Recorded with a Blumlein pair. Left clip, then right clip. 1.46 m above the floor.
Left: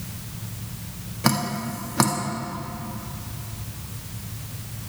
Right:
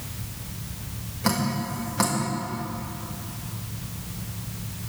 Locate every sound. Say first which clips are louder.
1.2 s dripping: left 2 dB; 20° left, 2 m